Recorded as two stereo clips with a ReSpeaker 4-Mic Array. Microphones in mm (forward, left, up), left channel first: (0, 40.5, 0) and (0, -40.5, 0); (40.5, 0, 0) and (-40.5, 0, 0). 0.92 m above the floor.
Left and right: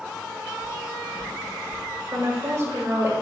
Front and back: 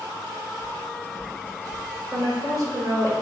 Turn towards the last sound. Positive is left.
turn(degrees=-150)